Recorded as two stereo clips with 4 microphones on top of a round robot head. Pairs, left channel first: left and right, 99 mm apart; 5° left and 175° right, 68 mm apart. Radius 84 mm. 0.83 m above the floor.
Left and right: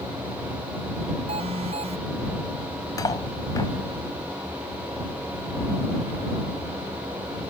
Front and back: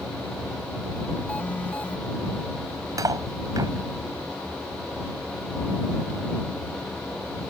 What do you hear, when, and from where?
1.3 s an alarm: 70° right
3.0 s cutlery clinking: 150° left